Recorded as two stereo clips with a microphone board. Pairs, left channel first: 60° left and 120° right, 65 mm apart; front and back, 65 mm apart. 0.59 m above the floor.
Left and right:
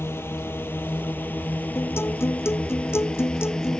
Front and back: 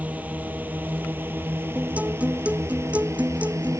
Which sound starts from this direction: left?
A guitar, at 1.8 s.